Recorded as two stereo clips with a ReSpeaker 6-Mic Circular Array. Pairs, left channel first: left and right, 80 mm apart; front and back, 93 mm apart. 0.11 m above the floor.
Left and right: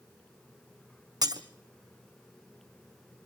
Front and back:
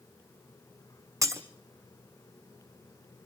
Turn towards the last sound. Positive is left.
turn(degrees=-125)